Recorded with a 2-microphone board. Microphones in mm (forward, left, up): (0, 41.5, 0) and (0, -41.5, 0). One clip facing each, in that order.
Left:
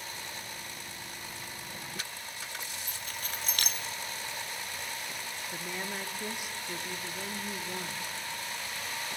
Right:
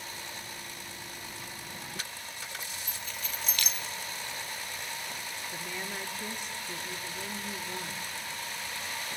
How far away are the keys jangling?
About 0.9 m.